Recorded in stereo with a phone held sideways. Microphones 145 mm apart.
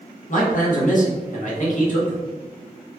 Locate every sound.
0.3 s a man speaking: 55° left (ahead or behind), 0.9 m